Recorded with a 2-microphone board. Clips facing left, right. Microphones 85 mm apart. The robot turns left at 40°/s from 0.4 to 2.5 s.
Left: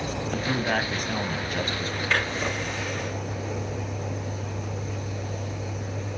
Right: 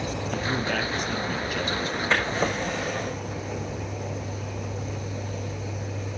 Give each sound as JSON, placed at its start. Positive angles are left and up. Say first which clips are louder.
{"t": 0.3, "sound": "a man speaking", "louder": "left 2 dB", "azimuth_deg": 110, "distance_m": 1.7}
{"t": 2.1, "sound": "a drawer", "louder": "right 2 dB", "side_deg": -25, "distance_m": 6.5}